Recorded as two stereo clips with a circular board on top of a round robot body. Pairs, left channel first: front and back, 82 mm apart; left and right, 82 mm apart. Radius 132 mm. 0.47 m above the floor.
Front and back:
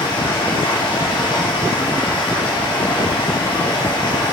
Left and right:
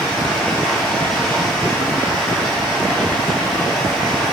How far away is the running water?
About 6 m.